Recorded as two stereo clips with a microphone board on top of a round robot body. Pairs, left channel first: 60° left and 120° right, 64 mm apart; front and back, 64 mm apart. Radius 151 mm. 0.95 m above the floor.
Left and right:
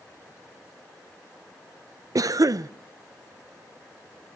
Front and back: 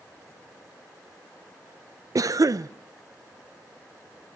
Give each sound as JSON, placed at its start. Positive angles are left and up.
{"t": 2.1, "sound": "a cough", "azimuth_deg": -150, "distance_m": 0.5}